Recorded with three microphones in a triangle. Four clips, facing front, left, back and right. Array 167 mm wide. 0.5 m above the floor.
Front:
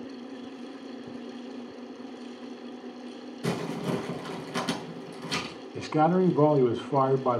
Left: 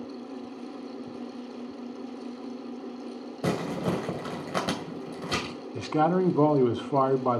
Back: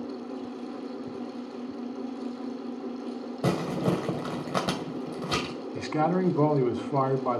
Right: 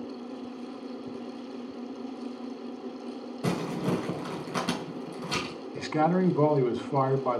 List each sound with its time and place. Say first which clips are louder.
3.4 s crumpling: left 1 dB, back 4 dB; 150° left, 2.0 m
5.8 s a man speaking: left 1 dB, front 3 dB; 60° left, 0.7 m